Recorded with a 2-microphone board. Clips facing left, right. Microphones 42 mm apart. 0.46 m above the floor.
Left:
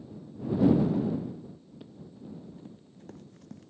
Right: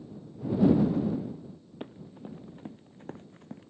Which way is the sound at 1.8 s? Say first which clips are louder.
Right 5 dB; 45° right (ahead or behind).